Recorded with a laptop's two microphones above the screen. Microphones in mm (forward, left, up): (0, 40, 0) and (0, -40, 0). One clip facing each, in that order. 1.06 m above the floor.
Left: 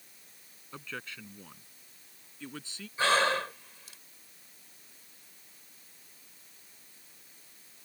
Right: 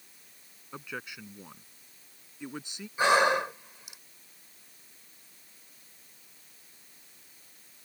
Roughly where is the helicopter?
No helicopter in this recording.